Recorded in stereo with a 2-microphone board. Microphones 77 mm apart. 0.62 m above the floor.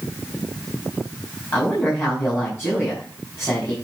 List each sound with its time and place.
1.5 s a woman speaking: 30° left (ahead or behind), 4.5 m